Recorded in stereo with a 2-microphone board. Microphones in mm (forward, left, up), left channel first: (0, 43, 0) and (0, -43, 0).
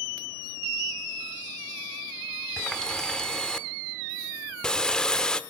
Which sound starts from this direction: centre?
A running tap, at 2.6 s.